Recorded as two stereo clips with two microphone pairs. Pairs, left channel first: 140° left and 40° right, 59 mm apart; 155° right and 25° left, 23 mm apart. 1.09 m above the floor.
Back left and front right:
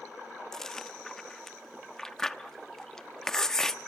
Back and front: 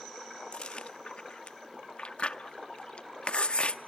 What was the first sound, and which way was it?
Chewing, 140° right.